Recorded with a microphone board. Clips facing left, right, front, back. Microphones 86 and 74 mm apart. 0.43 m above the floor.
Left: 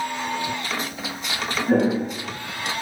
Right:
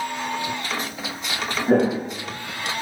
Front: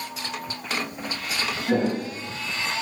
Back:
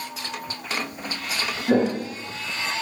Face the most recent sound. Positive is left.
turn(degrees=-130)